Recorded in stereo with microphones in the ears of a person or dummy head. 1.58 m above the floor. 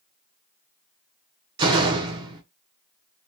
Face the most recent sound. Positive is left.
turn(degrees=-25)  # may be behind; listen again after turning